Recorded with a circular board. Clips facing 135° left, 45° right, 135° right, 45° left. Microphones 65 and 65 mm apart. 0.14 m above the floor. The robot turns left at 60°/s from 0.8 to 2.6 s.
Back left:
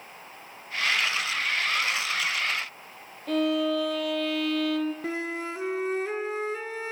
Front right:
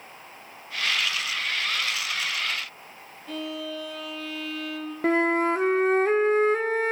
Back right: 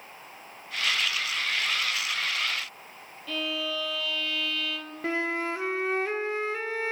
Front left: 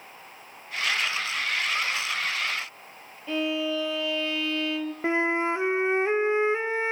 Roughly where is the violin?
Left.